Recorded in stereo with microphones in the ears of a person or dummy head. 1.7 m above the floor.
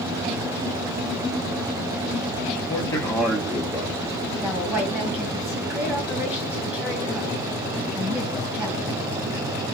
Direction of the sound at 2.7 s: 30° left (ahead or behind).